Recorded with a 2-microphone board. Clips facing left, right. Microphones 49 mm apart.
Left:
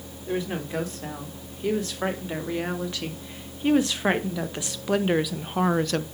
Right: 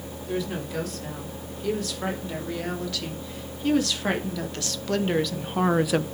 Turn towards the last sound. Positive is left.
turn(degrees=-15)  # may be behind; listen again after turning